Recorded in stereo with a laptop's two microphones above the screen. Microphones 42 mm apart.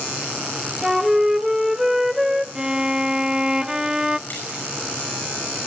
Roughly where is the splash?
Left.